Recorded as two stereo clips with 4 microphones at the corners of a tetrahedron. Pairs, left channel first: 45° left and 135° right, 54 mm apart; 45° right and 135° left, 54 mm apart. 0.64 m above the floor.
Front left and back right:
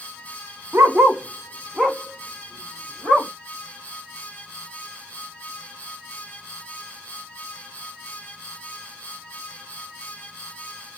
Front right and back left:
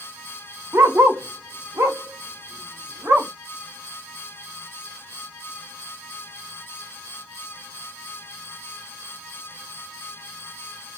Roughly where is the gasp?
No gasp in this recording.